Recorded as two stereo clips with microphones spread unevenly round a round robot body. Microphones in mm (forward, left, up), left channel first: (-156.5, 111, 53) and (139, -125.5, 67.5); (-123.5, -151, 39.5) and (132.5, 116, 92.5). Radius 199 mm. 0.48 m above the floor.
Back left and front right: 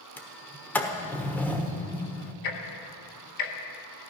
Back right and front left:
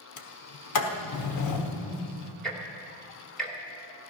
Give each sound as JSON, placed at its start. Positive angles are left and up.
{"t": 0.2, "sound": "a sliding door", "azimuth_deg": -135, "distance_m": 1.3}
{"t": 2.4, "sound": "ticking", "azimuth_deg": 145, "distance_m": 1.8}